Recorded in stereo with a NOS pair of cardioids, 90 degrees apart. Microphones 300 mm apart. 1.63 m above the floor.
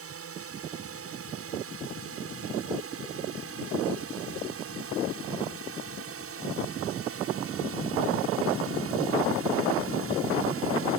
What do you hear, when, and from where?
0.0 s a drone: 50° right